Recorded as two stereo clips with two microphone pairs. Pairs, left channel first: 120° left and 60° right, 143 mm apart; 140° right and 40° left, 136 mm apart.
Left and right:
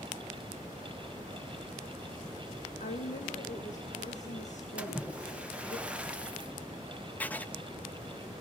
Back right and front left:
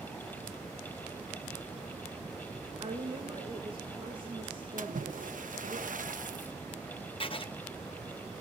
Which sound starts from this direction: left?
A woman speaking, at 2.8 s.